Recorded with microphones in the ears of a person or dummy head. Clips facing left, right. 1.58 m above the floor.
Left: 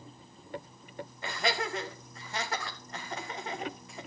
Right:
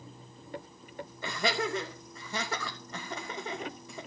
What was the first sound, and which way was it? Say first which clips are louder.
Laughter: right 1 dB; 75° right (ahead or behind).